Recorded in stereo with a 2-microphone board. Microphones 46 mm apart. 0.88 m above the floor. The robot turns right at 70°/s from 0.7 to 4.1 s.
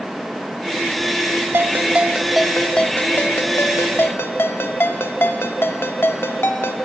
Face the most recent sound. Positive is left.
turn(degrees=115)